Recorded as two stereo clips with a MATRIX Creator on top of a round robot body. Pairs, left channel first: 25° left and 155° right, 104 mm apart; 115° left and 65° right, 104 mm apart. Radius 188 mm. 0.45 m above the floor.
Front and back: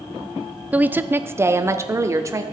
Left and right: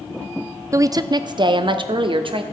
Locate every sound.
0.7 s a woman speaking: 95° right, 0.7 m; by 2.4 s 100° right, 1.5 m